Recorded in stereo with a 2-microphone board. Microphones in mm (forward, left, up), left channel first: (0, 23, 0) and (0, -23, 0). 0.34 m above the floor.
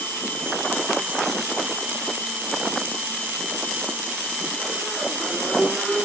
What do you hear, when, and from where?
Only background noise.